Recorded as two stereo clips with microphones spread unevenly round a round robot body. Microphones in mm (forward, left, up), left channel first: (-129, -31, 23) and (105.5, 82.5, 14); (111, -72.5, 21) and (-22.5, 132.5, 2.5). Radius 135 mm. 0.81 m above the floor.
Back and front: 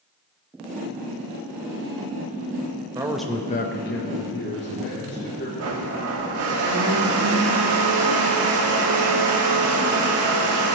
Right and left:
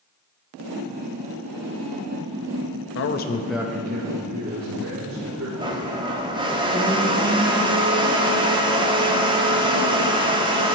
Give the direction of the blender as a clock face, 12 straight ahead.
10 o'clock.